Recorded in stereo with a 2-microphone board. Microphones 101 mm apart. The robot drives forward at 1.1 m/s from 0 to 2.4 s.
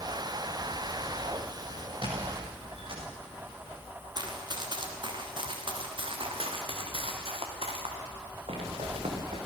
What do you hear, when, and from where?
2.0 s a squeak: 55° right (ahead or behind), 5.5 m; by 3.0 s 60° right (ahead or behind), 5 m
4.2 s running footsteps: 45° right (ahead or behind), 4 m; by 9.5 s 80° right, 5.5 m